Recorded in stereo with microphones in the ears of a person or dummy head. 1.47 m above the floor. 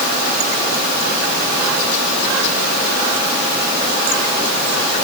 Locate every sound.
Only background noise.